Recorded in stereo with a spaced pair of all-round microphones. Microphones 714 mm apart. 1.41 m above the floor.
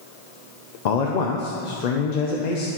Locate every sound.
0.8 s a man speaking: 65° left (ahead or behind), 0.7 m